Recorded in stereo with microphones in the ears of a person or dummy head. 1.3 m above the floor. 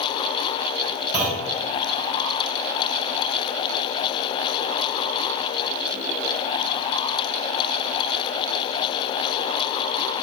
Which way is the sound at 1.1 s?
10° right (ahead or behind).